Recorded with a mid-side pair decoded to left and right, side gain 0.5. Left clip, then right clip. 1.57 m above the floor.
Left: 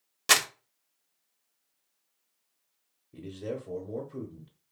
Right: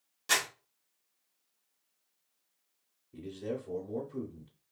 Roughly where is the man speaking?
Ahead.